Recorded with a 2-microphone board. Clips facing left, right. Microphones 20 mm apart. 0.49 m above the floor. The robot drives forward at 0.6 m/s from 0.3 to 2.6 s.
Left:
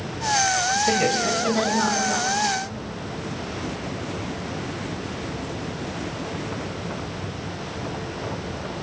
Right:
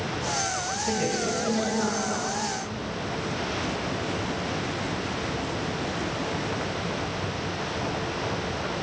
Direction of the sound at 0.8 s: 35° left (ahead or behind).